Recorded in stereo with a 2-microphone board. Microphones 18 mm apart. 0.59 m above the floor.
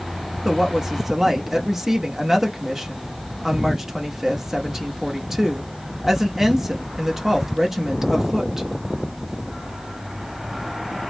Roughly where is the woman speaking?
Right.